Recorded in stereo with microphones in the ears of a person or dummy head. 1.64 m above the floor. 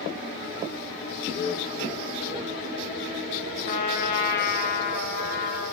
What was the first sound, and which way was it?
Laughter, 55° left (ahead or behind).